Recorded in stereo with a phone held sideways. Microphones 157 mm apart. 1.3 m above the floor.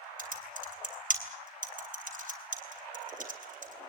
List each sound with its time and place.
0.2 s typing on a keyboard: 55° right (ahead or behind), 3 m